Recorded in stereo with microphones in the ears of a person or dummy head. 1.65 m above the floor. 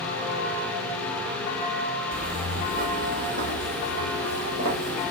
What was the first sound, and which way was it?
Footsteps, 35° right (ahead or behind).